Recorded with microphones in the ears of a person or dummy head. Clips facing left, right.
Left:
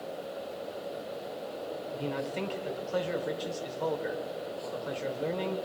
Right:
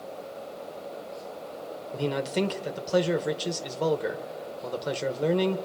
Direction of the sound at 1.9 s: 60° right (ahead or behind).